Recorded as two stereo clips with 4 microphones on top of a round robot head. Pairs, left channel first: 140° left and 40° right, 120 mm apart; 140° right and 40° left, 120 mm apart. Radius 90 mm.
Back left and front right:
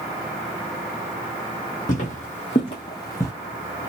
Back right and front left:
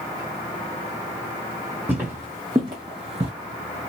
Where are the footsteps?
115° left, 1.3 m; by 3.3 s 70° left, 1.0 m.